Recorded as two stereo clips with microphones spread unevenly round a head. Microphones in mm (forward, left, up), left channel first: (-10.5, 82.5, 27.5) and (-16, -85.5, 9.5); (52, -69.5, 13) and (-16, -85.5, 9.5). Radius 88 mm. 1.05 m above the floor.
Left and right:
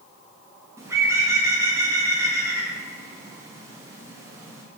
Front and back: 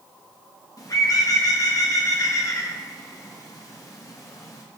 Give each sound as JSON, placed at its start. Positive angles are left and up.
{"t": 0.8, "sound": "a bird", "azimuth_deg": -20, "distance_m": 1.8}